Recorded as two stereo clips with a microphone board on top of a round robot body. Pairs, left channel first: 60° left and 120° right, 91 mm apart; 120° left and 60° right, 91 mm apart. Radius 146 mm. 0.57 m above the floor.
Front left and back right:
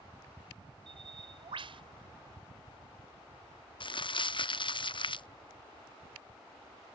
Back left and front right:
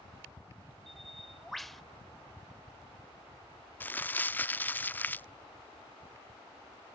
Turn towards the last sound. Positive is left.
turn(degrees=50)